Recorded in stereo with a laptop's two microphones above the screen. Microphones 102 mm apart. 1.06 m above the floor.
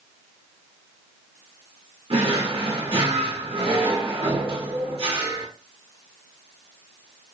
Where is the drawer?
60° right (ahead or behind), 0.8 m.